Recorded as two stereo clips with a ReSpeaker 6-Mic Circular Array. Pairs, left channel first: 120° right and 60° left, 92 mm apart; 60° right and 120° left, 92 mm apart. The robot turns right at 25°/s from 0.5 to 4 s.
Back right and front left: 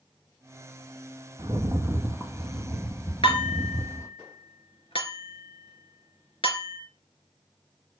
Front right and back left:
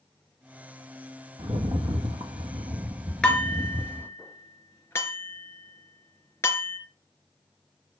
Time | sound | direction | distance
1.4 | a rattle | 115° left | 1.7 m
3.2 | dishes clattering | 140° right | 3.5 m